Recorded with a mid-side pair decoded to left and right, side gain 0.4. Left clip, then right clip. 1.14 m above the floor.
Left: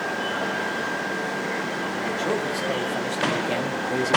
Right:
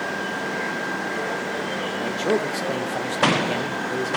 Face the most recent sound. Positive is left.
turn(degrees=35)